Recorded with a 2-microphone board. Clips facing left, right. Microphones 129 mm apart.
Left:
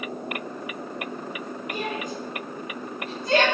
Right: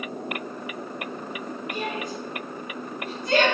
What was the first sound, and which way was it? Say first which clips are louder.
A shout: left 1 dB; 45° left (ahead or behind).